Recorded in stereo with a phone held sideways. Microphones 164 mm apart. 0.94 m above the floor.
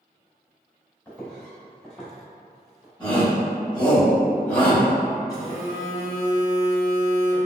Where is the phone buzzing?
70° left (ahead or behind), 1.9 m.